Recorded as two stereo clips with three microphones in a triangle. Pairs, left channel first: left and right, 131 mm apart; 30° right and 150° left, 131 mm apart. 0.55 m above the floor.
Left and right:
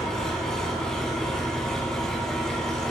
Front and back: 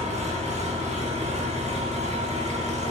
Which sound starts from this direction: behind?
An engine running, at 0.0 s.